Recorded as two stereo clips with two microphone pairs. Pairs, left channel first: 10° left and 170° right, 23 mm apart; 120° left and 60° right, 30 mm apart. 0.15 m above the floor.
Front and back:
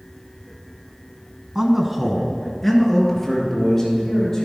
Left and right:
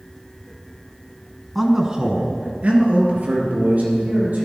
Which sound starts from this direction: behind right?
A man speaking, at 1.6 s.